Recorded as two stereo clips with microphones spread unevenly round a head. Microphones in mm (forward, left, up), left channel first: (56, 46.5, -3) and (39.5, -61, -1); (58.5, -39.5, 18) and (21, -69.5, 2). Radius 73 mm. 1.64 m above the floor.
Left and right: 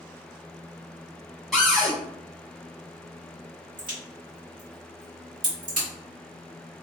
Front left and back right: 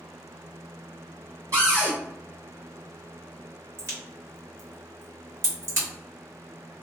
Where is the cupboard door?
170° left, 1.0 m.